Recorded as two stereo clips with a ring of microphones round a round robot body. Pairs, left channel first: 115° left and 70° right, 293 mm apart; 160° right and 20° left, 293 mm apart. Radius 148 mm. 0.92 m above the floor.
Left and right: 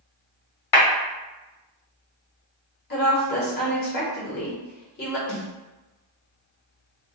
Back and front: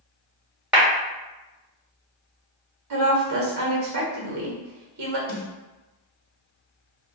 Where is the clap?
110° left, 1.3 m.